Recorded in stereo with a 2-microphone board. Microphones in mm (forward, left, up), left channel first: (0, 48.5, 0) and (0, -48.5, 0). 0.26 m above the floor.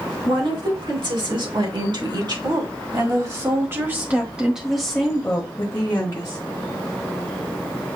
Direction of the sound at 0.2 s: 65° right (ahead or behind).